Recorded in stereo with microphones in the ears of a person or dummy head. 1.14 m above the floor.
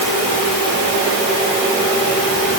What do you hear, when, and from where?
Only background noise.